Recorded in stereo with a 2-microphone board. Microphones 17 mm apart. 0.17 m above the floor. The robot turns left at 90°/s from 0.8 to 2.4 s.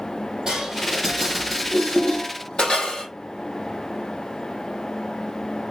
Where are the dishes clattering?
50° right (ahead or behind), 3.5 m; by 3.1 s 75° left (ahead or behind), 3.5 m.